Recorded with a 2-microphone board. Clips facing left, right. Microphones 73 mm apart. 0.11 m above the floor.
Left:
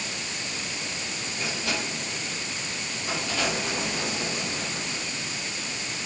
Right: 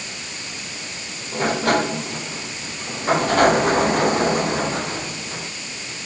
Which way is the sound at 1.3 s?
50° right (ahead or behind).